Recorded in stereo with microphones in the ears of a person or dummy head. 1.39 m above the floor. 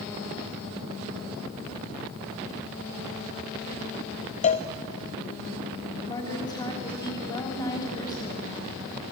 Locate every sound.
4.4 s a cowbell: 40° left (ahead or behind), 1.0 m
6.1 s a woman speaking: 25° left (ahead or behind), 4 m